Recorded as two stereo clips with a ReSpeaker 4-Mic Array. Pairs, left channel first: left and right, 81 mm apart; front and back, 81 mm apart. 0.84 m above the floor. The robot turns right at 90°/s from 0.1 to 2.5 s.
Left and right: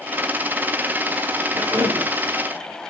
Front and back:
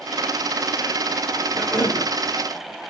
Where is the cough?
90° right, 4 m; by 2.1 s 45° right, 4 m.